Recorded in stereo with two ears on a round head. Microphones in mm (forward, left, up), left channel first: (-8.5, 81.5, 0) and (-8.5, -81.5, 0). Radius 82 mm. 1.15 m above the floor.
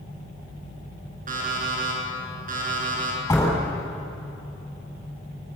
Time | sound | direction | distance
1.3 | an alarm clock | 50° right (ahead or behind) | 8.5 m
3.3 | a door slam | 15° left (ahead or behind) | 7.5 m